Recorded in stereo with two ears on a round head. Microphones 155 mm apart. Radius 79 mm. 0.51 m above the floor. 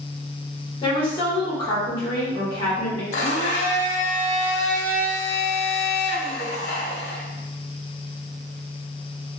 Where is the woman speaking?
30° left (ahead or behind), 1.5 m.